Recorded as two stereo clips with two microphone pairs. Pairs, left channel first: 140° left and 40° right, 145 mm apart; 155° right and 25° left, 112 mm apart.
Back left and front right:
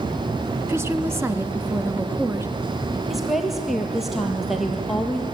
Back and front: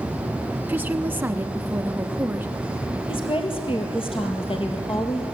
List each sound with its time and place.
0.7 s a woman speaking: 10° right, 1.1 m
3.1 s a woman speaking: 130° right, 4 m